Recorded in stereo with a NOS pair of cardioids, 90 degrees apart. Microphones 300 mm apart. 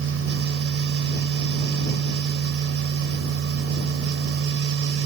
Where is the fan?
50° right.